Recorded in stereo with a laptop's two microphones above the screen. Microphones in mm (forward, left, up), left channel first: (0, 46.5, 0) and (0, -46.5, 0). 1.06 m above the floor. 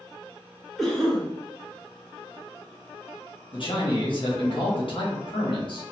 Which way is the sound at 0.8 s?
Centre (ahead or behind).